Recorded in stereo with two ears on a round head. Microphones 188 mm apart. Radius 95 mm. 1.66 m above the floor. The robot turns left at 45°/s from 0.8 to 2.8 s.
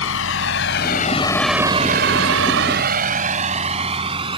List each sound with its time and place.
0.0 s a vehicle: 65° left (ahead or behind); by 4.4 s 25° right (ahead or behind)